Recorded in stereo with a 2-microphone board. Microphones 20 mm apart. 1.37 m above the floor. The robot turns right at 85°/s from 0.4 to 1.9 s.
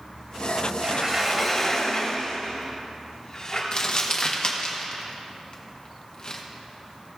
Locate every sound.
0.8 s a sliding door: 50° right, 1.8 m; by 3.6 s 40° left, 1.8 m
3.7 s crumpling: 45° left (ahead or behind), 1.0 m